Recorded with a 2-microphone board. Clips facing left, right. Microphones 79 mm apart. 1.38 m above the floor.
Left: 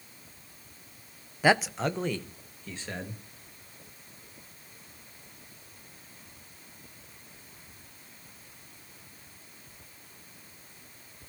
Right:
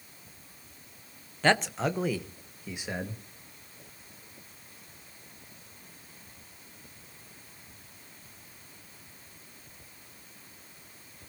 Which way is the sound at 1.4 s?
10° left (ahead or behind).